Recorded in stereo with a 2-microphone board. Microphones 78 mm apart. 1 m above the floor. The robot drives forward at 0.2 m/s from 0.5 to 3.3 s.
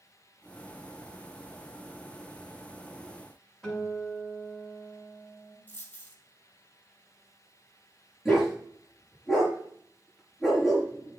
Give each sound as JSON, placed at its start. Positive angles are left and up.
{"t": 3.6, "sound": "a guitar", "side_deg": 0, "distance_m": 6.5}
{"t": 5.7, "sound": "a dropped coin", "side_deg": 20, "distance_m": 2.0}
{"t": 8.2, "sound": "a dog barking", "side_deg": -5, "distance_m": 5.0}